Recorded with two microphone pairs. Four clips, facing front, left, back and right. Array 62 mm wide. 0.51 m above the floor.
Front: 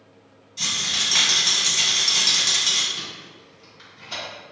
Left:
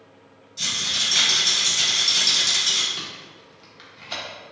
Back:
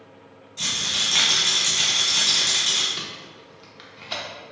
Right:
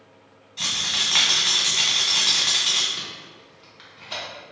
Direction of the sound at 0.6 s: 95° right.